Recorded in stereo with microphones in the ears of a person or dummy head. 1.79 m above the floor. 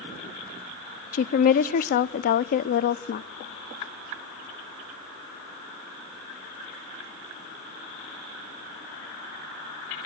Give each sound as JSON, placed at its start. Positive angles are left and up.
{"t": 1.1, "sound": "a woman speaking", "side_deg": 45, "distance_m": 0.5}